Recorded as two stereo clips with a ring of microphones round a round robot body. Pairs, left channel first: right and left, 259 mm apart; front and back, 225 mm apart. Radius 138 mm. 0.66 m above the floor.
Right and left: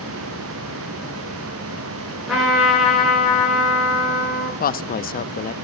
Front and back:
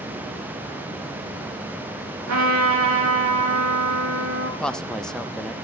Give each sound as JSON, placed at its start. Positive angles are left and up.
{"t": 2.3, "sound": "a trumpet", "azimuth_deg": 180, "distance_m": 6.5}
{"t": 4.6, "sound": "a woman speaking", "azimuth_deg": -85, "distance_m": 0.7}